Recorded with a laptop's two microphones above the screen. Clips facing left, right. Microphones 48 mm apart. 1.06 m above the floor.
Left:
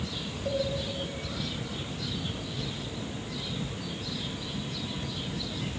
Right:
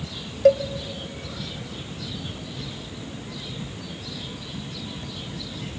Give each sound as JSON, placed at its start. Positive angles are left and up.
{"t": 0.5, "sound": "a cowbell", "side_deg": -85, "distance_m": 0.6}